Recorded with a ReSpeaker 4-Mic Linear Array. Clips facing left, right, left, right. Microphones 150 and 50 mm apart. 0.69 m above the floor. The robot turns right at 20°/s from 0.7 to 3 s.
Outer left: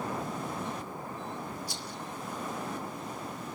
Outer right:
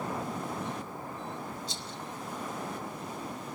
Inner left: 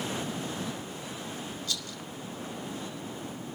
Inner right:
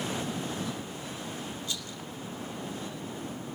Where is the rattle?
25° right (ahead or behind), 2.5 m; by 2.0 s 30° right (ahead or behind), 2.5 m.